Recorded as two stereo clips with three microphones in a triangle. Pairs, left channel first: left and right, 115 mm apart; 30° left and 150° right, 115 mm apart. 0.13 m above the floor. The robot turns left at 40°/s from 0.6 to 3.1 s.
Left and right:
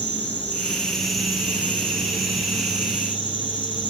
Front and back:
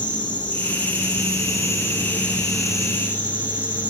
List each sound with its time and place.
0.0 s an insect: 25° left, 1.8 m; by 3.9 s 75° right, 1.8 m